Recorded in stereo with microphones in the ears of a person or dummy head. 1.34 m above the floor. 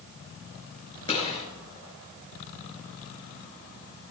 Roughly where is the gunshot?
Left.